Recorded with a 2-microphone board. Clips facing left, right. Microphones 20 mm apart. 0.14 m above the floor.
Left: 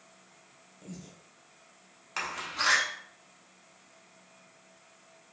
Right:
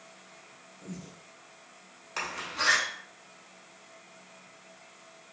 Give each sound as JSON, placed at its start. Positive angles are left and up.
{"t": 0.8, "sound": "breathing", "side_deg": 5, "distance_m": 0.8}
{"t": 2.2, "sound": "a door slam", "side_deg": 10, "distance_m": 0.7}